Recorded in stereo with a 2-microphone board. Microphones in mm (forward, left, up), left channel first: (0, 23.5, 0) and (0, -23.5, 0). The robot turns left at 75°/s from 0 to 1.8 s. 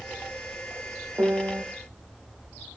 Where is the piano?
50° right, 1.0 m; by 1.6 s 85° right, 1.0 m.